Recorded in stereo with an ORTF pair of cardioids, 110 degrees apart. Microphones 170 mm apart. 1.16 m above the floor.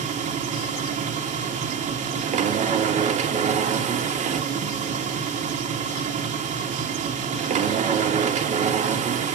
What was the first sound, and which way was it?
A machine running, 50° right.